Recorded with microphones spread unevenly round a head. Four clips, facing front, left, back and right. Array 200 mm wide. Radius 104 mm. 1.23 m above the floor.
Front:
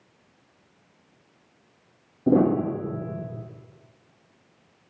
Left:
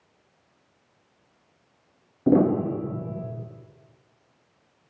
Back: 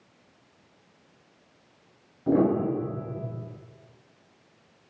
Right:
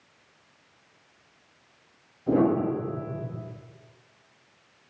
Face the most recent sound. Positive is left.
turn(degrees=50)